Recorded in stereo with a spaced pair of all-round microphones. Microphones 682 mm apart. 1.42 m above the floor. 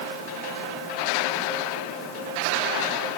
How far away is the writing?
No writing in this recording.